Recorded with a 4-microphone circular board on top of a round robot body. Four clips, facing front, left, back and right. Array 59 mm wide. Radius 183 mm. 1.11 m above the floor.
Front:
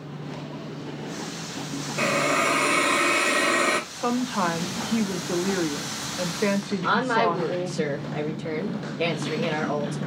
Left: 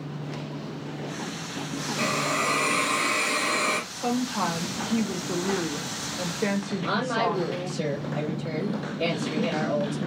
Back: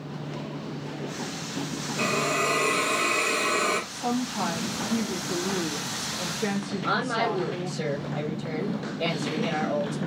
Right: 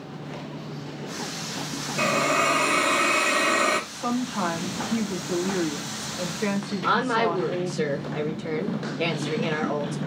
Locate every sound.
2.0 s a hiss: 35° right, 1.9 m
3.9 s a woman speaking: 5° right, 1.6 m
6.8 s a woman speaking: 45° right, 2.0 m